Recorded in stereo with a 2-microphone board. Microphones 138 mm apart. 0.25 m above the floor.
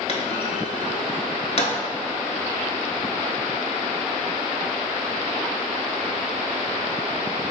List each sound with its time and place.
0.1 s a clunk: 50° left (ahead or behind), 0.8 m